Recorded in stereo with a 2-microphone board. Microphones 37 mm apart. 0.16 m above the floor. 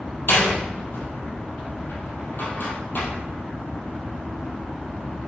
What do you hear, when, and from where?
0.3 s a door slam: 65° left (ahead or behind), 3 m